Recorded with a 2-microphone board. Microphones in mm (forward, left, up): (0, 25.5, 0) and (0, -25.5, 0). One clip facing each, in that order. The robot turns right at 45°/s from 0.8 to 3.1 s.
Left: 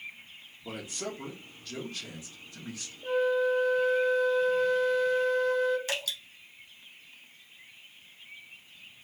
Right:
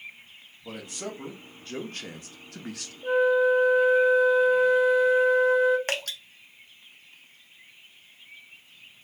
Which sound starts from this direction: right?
Dripping, at 5.9 s.